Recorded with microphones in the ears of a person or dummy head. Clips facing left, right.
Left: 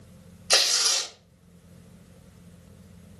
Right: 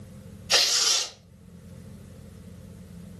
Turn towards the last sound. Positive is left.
turn(degrees=65)  # may be behind; listen again after turning